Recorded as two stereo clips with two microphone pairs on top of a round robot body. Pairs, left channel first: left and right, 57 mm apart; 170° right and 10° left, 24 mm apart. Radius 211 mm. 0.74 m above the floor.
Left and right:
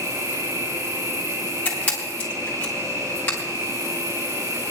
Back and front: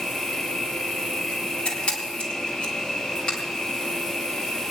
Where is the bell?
I don't hear a bell.